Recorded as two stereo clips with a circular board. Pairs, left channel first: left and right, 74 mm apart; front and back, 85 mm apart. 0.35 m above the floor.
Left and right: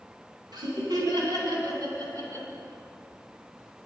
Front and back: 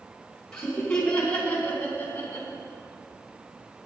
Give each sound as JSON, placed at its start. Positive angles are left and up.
{"t": 0.5, "sound": "laughter", "azimuth_deg": -80, "distance_m": 4.0}